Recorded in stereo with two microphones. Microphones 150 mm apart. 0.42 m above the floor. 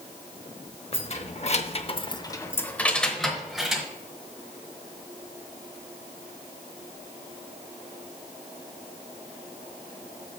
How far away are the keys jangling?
About 0.9 m.